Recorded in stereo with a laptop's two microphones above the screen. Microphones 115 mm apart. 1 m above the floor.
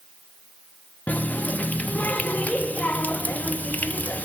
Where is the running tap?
15° left (ahead or behind), 0.6 m.